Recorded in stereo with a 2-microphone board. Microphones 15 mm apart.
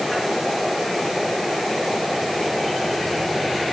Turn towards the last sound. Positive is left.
No sound to turn to.